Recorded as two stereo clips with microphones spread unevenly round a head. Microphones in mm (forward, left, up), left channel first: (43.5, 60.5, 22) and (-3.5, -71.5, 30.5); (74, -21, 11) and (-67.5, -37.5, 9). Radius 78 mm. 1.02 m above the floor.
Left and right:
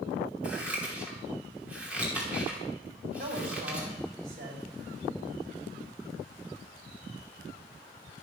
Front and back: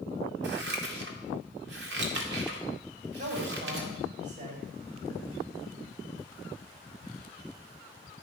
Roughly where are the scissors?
Behind.